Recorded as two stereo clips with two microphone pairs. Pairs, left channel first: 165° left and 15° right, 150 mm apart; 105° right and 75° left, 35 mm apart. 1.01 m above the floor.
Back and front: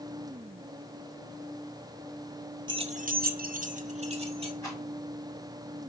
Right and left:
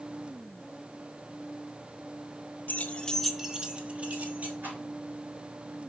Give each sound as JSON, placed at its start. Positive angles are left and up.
{"t": 2.7, "sound": "keys jangling", "azimuth_deg": -70, "distance_m": 0.6}
{"t": 4.6, "sound": "a rattle", "azimuth_deg": 95, "distance_m": 4.0}